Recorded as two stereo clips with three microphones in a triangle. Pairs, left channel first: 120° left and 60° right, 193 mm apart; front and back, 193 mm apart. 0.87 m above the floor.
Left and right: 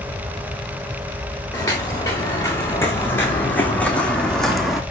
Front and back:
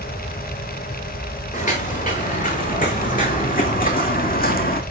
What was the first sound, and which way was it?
Footsteps, 45° left.